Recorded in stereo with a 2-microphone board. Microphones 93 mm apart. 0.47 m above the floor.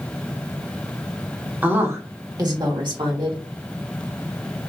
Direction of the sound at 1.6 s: 15° right (ahead or behind).